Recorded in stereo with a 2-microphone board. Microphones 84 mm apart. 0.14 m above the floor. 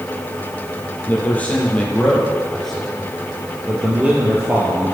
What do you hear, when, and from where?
1.1 s a man speaking: 20° left (ahead or behind), 4 m; by 4.9 s 25° right (ahead or behind), 3 m